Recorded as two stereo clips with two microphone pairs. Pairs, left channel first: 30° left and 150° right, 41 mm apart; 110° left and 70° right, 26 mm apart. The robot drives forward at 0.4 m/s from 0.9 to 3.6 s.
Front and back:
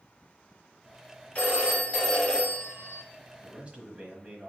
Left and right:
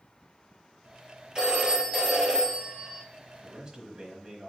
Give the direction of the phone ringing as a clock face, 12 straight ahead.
1 o'clock.